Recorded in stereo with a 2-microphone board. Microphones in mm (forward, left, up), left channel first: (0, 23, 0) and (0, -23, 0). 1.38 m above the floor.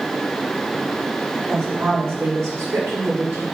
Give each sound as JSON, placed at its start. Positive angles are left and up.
{"t": 1.5, "sound": "a woman speaking", "side_deg": -85, "distance_m": 4.0}